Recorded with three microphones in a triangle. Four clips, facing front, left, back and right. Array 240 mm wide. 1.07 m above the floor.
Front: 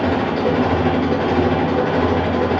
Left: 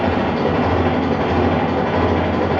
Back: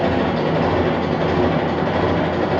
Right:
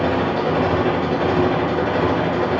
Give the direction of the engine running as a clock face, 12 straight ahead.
10 o'clock.